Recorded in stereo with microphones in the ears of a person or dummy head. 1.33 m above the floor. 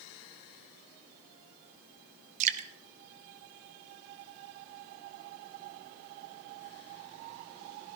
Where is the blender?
I don't hear a blender.